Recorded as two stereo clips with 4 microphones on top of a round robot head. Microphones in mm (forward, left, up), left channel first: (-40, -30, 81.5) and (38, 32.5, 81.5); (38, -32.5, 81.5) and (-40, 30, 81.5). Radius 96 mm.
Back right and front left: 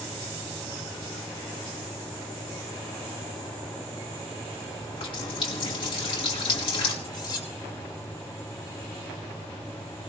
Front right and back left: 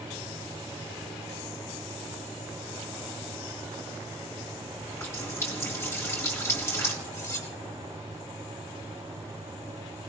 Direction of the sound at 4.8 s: 100° right.